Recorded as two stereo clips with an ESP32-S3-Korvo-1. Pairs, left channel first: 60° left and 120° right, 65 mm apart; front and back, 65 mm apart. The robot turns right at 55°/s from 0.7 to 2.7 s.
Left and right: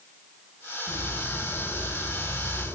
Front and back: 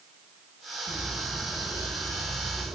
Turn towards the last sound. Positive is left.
turn(degrees=170)